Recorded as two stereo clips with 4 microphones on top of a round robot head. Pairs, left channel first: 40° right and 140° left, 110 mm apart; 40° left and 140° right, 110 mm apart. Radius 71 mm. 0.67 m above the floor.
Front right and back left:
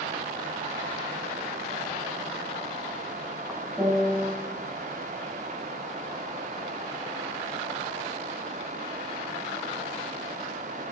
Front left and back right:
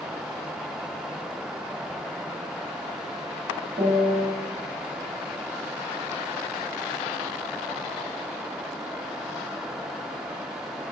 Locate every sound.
3.8 s a piano: 135° right, 0.6 m